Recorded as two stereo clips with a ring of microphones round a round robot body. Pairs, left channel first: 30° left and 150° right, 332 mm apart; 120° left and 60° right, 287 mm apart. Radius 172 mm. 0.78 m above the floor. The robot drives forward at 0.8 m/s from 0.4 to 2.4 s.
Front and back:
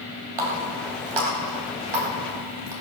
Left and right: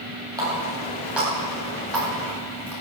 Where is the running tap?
140° right, 2.5 m; by 2.7 s 155° right, 4 m.